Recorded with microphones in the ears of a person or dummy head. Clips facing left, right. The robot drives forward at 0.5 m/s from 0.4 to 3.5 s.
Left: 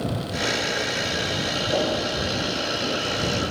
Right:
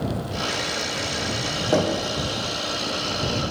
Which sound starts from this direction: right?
Knocking, at 1.7 s.